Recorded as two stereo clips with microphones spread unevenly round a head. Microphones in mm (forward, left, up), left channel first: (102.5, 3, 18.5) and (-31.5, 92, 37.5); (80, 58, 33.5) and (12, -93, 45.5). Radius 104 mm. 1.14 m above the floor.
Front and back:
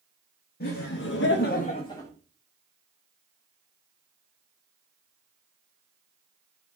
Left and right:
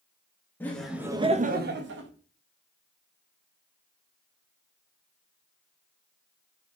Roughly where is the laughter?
Ahead.